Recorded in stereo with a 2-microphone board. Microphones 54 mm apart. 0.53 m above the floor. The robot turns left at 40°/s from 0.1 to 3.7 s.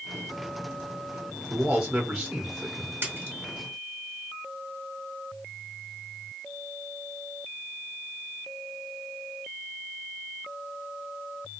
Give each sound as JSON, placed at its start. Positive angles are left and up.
{"t": 1.5, "sound": "a man speaking", "side_deg": -15, "distance_m": 1.2}
{"t": 3.0, "sound": "a splash", "side_deg": -45, "distance_m": 1.6}